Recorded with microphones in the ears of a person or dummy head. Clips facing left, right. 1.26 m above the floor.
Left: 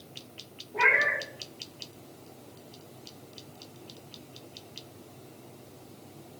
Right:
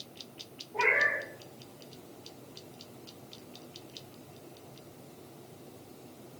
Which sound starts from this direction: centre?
A cat meowing, at 0.7 s.